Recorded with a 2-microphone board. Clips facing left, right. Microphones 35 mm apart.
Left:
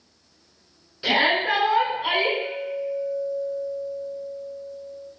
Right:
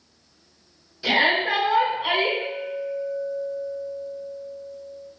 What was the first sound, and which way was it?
A shout, 35° left (ahead or behind).